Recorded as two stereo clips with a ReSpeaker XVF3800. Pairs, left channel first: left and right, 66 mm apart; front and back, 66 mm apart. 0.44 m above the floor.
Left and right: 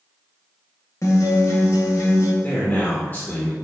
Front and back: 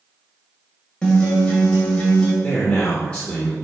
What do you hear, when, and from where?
1.0 s a guitar: 75° left, 1.8 m
2.4 s a man speaking: 60° left, 1.2 m